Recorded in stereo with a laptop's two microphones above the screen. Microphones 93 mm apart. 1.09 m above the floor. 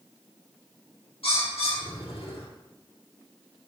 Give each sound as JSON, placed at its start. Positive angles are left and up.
{"t": 1.2, "sound": "a bird", "side_deg": 85, "distance_m": 2.5}